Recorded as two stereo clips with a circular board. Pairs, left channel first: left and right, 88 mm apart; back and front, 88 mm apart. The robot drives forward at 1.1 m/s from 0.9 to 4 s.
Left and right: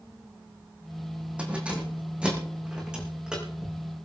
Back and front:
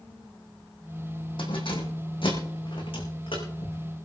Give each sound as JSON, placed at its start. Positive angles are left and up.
{"t": 1.4, "sound": "keys jangling", "azimuth_deg": -165, "distance_m": 4.5}